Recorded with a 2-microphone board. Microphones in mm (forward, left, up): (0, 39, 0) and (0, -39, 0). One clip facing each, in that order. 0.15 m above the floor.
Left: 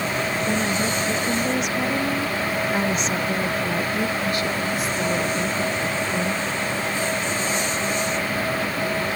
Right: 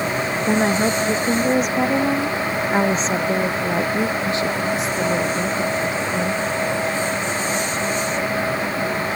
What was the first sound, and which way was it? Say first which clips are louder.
A woman speaking: right 9 dB; 50° right (ahead or behind).